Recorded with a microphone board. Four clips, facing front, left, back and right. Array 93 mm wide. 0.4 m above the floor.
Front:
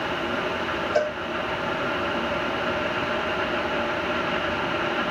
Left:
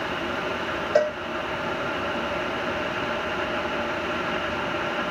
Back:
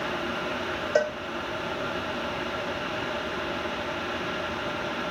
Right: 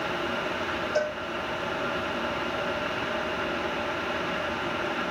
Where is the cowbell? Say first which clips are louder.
Left 7 dB, even; 130° left, 8.5 m.